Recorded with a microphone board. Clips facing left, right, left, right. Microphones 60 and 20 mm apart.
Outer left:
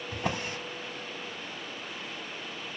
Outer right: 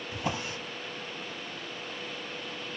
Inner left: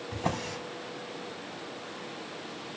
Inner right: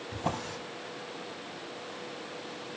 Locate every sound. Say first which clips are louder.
0.1 s a drawer: outer left 1 dB, inner left 2 dB; 50° left (ahead or behind), 1.4 m